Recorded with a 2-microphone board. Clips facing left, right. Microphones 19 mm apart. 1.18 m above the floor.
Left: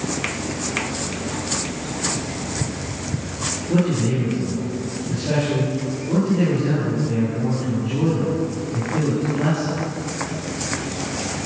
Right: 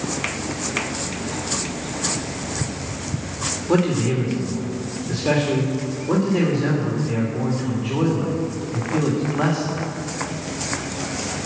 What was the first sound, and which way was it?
A man speaking, 65° right (ahead or behind).